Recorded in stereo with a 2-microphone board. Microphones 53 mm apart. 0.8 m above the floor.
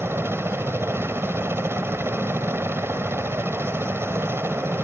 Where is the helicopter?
50° right (ahead or behind).